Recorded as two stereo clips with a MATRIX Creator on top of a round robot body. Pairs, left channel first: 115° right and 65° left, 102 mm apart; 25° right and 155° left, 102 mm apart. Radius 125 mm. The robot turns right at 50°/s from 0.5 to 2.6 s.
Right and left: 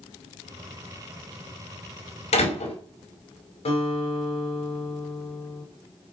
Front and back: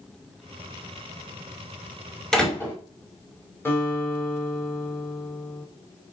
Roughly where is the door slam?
Right.